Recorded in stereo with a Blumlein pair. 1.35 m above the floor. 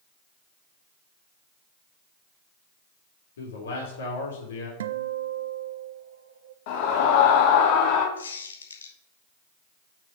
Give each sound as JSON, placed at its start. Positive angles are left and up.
{"t": 3.4, "sound": "a man speaking", "azimuth_deg": 65, "distance_m": 3.5}
{"t": 4.8, "sound": "a guitar", "azimuth_deg": -60, "distance_m": 0.6}
{"t": 6.7, "sound": "a scream", "azimuth_deg": 50, "distance_m": 2.0}
{"t": 8.2, "sound": "a squeak", "azimuth_deg": 70, "distance_m": 1.5}